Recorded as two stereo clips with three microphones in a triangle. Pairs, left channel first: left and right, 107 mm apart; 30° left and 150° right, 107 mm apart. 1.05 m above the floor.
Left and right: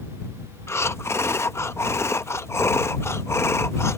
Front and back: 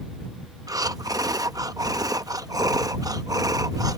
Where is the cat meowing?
I don't hear a cat meowing.